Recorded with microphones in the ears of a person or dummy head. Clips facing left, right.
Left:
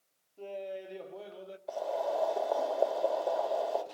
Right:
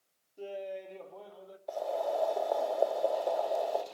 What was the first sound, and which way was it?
Laughter, 20° right (ahead or behind).